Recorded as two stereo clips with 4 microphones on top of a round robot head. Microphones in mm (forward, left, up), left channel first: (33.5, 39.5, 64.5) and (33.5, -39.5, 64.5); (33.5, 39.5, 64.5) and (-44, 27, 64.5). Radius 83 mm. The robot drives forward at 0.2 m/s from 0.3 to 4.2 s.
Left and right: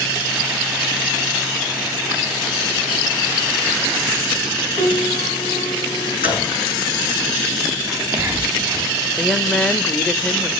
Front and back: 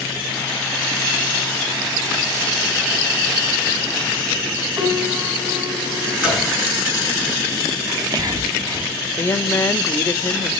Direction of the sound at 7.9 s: 150° right.